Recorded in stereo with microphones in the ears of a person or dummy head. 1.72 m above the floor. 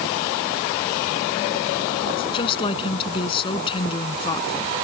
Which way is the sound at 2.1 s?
30° left (ahead or behind).